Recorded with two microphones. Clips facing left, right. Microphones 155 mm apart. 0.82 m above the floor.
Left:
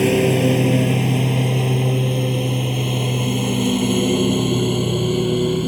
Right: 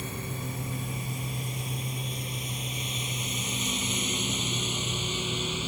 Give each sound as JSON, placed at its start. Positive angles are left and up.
{"t": 0.0, "sound": "a lawn mower", "side_deg": 75}